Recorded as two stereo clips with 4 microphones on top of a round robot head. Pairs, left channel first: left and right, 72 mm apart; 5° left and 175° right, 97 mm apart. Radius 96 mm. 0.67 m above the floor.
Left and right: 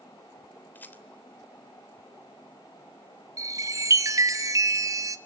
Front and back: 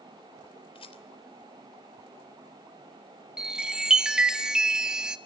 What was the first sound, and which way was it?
A rattle, 25° left.